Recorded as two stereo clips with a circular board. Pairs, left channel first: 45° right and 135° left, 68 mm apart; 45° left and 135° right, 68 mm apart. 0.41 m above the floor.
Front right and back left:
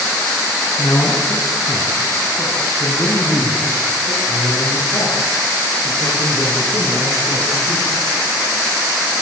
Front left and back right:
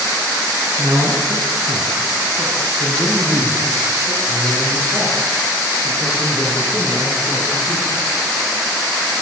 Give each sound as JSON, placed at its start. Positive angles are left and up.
{"t": 0.8, "sound": "a man speaking", "azimuth_deg": -90, "distance_m": 5.5}